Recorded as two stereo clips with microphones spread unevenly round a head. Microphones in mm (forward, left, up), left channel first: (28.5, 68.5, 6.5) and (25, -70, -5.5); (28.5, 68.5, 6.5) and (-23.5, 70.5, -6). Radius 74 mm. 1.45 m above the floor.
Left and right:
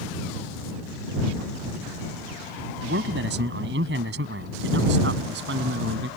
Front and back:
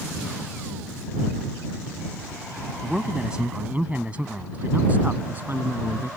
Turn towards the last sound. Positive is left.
turn(degrees=-105)